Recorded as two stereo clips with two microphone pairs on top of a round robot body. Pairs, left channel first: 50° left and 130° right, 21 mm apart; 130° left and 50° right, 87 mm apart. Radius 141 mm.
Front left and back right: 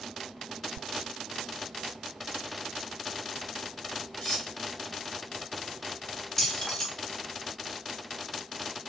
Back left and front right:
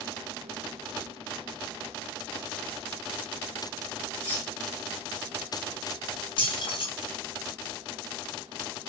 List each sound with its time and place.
4.2 s cutlery clinking: 60° left, 2.5 m
6.4 s keys jangling: 110° left, 1.3 m